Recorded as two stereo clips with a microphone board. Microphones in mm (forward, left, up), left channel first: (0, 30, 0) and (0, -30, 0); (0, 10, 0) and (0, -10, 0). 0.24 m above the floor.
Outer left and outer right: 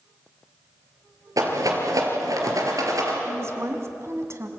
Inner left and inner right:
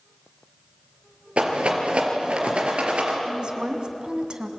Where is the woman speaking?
50° right (ahead or behind), 2 m.